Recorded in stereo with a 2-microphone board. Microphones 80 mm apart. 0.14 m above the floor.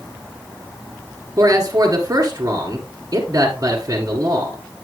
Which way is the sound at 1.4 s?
40° right (ahead or behind).